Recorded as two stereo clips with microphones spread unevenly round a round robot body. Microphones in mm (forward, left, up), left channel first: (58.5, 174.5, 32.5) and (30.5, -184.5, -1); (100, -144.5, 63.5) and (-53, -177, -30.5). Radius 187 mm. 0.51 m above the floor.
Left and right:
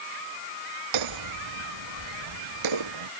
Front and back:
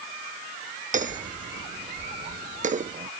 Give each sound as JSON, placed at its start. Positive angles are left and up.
{"t": 0.9, "sound": "hammering", "azimuth_deg": -130}